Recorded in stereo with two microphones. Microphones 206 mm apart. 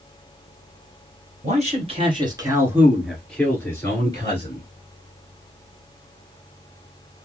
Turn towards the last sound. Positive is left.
turn(degrees=30)  # may be behind; listen again after turning